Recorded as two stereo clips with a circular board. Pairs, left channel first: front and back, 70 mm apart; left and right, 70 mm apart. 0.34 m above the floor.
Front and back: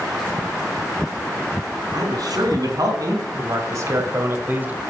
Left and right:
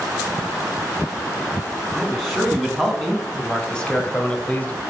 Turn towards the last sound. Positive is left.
turn(degrees=125)